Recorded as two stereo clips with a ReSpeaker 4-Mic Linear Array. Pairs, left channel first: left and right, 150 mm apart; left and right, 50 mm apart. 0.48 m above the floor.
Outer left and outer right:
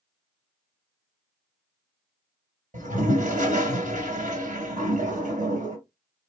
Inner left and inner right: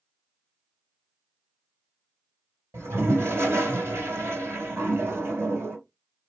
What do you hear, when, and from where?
2.7 s a toilet flushing: 60° right (ahead or behind), 1.9 m